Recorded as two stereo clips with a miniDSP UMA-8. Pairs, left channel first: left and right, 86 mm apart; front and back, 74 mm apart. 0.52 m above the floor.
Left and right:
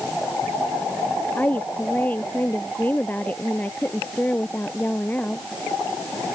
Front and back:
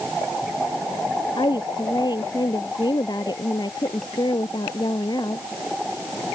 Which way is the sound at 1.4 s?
20° left.